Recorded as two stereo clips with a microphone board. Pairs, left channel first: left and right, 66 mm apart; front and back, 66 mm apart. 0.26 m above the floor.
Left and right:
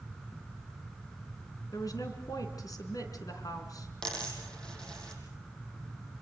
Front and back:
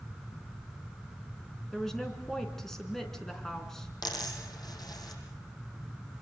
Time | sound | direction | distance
1.7 | a woman speaking | 85° left | 3.5 m
4.0 | a dropped coin | 10° left | 4.5 m